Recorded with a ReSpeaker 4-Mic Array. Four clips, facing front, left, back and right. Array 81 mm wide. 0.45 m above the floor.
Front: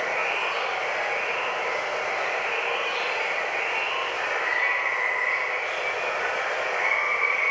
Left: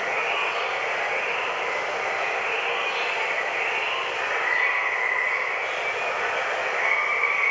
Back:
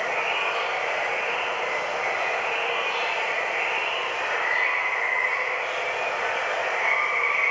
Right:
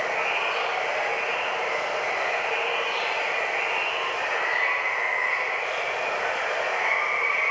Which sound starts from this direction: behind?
Running water, at 0.0 s.